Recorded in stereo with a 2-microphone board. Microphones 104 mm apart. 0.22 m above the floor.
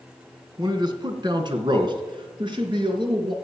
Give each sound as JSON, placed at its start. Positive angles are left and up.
{"t": 0.6, "sound": "a man speaking", "side_deg": -40, "distance_m": 2.0}